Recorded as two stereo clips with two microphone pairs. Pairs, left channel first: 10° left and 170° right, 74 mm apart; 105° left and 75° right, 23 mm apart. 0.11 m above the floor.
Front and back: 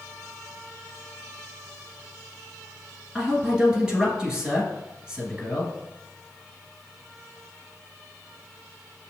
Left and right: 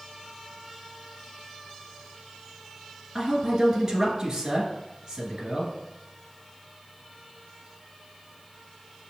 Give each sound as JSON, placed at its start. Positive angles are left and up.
{"t": 3.1, "sound": "a man speaking", "azimuth_deg": -100, "distance_m": 1.1}